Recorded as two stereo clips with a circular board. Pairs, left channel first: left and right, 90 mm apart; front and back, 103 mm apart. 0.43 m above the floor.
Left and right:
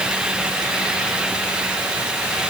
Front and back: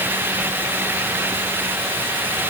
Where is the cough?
No cough in this recording.